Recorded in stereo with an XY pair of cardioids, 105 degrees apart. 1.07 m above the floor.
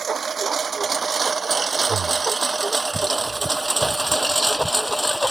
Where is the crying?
I don't hear crying.